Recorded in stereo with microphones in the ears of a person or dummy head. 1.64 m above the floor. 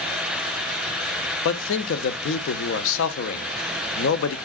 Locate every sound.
1.4 s a man speaking: 70° left (ahead or behind), 0.9 m